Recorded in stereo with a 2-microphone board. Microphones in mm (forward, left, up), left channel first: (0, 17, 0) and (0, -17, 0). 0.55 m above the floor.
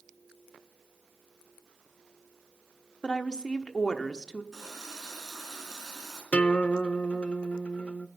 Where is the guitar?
40° left (ahead or behind), 0.5 m.